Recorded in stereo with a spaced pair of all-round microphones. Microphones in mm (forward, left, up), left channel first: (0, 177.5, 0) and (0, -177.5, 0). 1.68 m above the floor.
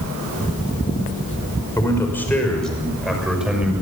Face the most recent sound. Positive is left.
turn(degrees=-5)  # may be behind; listen again after turning